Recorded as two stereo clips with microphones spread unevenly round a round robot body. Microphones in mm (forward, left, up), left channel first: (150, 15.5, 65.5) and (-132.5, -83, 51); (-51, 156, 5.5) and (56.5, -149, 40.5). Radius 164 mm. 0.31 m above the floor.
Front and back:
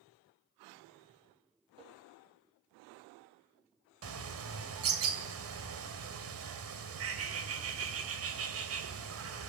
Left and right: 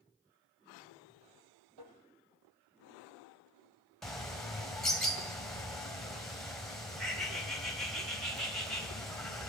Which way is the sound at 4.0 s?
165° right.